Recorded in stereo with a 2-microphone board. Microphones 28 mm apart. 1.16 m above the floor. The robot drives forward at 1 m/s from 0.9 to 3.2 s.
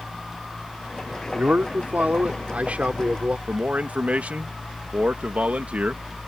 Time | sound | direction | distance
1.3 | a man speaking | 85° right | ?
3.5 | a man speaking | 60° right (ahead or behind) | ?